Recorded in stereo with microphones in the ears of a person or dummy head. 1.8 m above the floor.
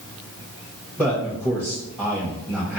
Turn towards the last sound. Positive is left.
turn(degrees=0)  # may be behind; listen again after turning